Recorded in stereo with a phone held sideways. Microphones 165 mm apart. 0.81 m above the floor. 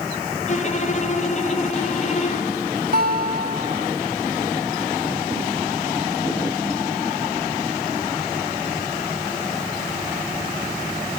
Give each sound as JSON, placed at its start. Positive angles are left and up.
{"t": 0.5, "sound": "a violin", "side_deg": 45, "distance_m": 7.5}
{"t": 2.9, "sound": "a guitar", "side_deg": -65, "distance_m": 1.8}